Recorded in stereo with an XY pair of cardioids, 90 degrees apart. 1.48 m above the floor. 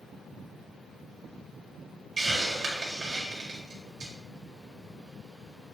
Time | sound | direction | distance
2.2 | a hiss | 50° right | 1.6 m